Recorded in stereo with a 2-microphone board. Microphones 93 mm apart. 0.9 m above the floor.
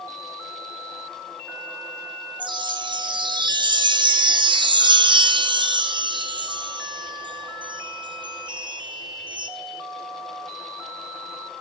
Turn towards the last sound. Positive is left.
turn(degrees=-55)  # may be behind; listen again after turning